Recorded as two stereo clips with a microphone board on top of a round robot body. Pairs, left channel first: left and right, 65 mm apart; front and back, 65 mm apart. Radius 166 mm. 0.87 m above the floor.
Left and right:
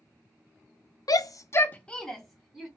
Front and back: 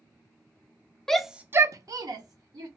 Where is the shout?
80° left, 0.6 m; by 2.7 s 175° right, 1.1 m.